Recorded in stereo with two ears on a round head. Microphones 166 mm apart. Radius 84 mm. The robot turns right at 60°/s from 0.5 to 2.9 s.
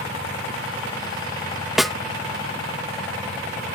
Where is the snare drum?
Centre (ahead or behind); by 2.0 s 5° left (ahead or behind).